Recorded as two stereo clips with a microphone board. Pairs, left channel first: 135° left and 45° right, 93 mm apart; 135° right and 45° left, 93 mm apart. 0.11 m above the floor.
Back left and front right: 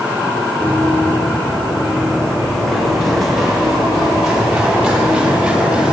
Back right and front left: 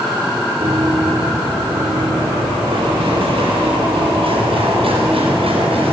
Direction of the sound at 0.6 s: 60° left.